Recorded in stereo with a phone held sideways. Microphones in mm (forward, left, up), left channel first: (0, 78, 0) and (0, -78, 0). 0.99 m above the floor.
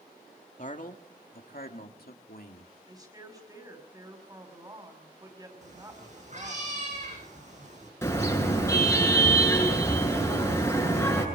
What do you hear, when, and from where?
0.6 s a man speaking: 55° left (ahead or behind), 2 m; by 2.7 s 75° left (ahead or behind), 2.5 m
2.9 s a woman speaking: 25° right (ahead or behind), 5.5 m
5.6 s a cat meowing: 50° right (ahead or behind), 8 m
8.0 s a car horn: 15° left (ahead or behind), 7 m